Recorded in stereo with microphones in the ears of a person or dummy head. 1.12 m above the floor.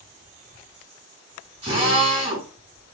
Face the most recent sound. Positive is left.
turn(degrees=-25)  # may be behind; listen again after turning